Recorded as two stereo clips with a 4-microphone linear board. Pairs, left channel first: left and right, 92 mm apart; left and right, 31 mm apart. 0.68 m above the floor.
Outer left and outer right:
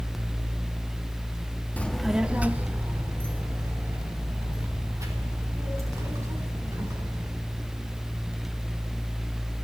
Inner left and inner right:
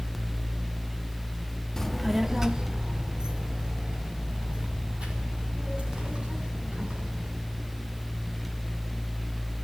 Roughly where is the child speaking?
Centre.